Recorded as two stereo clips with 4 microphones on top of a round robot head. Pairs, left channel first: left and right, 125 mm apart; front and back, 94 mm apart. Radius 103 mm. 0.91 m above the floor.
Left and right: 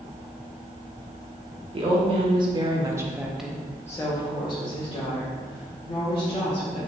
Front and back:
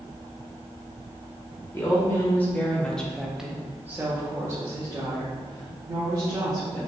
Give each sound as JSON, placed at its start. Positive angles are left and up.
{"t": 1.7, "sound": "a woman speaking", "azimuth_deg": -60, "distance_m": 1.2}